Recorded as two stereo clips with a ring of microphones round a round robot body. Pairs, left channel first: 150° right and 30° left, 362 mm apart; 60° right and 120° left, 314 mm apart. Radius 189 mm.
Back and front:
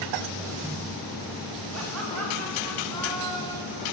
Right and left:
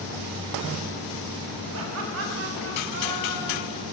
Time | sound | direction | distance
1.7 | laughter | 80° left | 6 m